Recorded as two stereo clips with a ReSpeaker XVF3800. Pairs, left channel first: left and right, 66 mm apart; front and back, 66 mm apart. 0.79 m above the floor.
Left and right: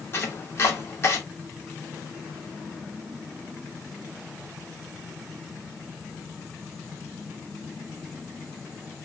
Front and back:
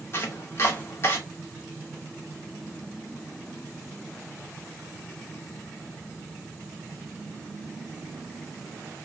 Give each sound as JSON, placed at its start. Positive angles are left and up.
{"t": 0.1, "sound": "chopping", "azimuth_deg": 40, "distance_m": 0.9}